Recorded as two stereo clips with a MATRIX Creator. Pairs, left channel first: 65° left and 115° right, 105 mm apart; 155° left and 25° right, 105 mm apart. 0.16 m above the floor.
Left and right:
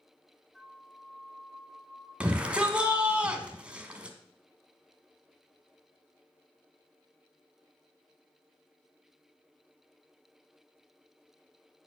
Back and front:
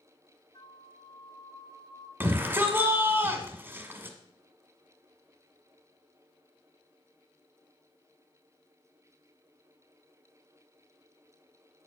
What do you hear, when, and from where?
0.5 s a flute: 150° left, 1.3 m
2.2 s a shout: 50° right, 1.2 m